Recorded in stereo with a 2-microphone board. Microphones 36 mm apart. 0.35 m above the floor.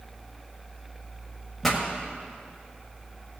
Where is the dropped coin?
No dropped coin in this recording.